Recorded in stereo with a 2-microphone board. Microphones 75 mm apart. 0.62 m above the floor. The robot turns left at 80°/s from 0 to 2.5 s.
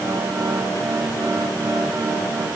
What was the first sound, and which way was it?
Only background noise.